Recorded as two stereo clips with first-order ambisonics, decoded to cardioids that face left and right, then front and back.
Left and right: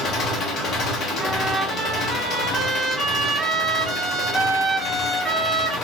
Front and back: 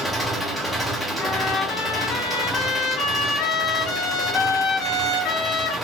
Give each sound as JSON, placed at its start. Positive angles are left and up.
{"t": 0.0, "sound": "an engine running", "azimuth_deg": 95, "distance_m": 0.9}
{"t": 1.2, "sound": "a trumpet", "azimuth_deg": 0, "distance_m": 1.0}